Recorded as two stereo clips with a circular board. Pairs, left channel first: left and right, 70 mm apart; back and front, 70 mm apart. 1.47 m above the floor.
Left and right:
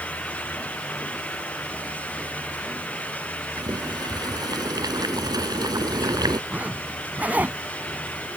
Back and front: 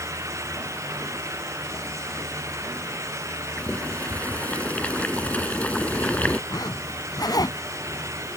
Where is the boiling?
110° right.